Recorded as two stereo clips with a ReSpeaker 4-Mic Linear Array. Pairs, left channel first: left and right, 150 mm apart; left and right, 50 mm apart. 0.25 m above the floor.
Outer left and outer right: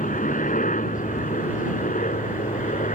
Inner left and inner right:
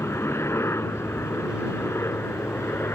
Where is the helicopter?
60° left (ahead or behind); by 3.0 s 55° left (ahead or behind).